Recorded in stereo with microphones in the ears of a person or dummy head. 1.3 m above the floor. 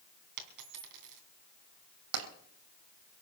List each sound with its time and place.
0.4 s a dropped coin: 55° right (ahead or behind), 2.5 m
2.1 s tapping: 75° right (ahead or behind), 3 m